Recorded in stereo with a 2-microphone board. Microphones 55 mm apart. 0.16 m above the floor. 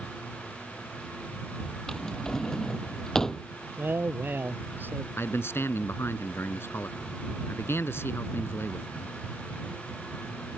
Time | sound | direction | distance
1.9 | a drawer | 10° left (ahead or behind) | ?
3.8 | a man speaking | 35° right (ahead or behind) | ?
5.2 | a man speaking | 45° left (ahead or behind) | ?